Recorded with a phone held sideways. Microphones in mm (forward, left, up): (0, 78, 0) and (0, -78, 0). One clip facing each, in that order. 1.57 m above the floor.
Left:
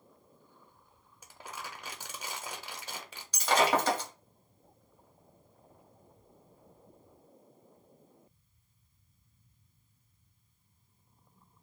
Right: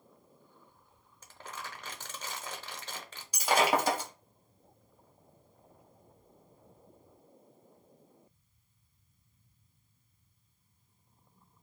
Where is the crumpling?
10° left (ahead or behind), 0.6 m.